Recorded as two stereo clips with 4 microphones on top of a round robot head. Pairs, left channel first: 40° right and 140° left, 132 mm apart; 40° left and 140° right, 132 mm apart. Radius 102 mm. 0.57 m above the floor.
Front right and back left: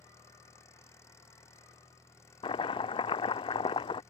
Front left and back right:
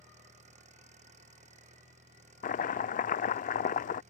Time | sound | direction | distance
0.0 | an engine running | 110° right | ?
2.4 | chopping | 15° left | ?